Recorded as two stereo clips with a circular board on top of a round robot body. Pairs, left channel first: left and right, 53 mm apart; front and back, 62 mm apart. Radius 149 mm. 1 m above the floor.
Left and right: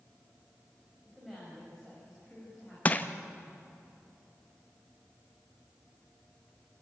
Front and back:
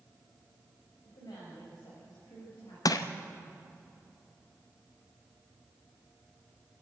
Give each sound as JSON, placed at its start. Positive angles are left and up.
{"t": 1.1, "sound": "a woman speaking", "azimuth_deg": 0, "distance_m": 5.0}
{"t": 2.9, "sound": "crushing", "azimuth_deg": 30, "distance_m": 0.8}